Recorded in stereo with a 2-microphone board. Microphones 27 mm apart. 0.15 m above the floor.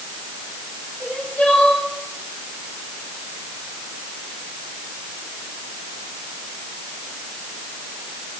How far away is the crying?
About 7.5 m.